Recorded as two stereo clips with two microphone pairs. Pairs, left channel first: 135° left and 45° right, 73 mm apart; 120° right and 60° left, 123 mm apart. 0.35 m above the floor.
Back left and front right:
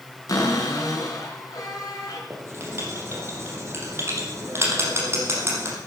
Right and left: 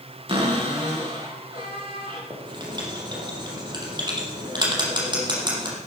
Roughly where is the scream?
No scream in this recording.